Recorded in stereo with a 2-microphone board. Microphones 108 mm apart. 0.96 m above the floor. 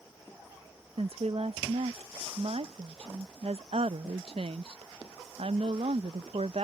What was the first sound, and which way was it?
A woman speaking, 65° right (ahead or behind).